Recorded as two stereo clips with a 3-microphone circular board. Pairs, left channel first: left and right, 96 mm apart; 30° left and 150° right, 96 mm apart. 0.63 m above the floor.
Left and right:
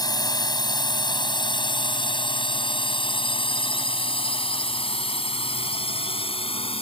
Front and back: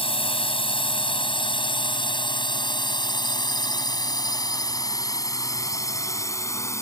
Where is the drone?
45° left; by 6.8 s 90° left.